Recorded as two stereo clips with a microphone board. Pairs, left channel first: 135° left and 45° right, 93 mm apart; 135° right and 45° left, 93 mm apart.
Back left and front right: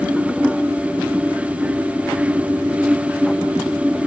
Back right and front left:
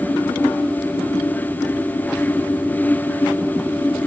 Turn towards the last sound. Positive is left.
No sound to turn to.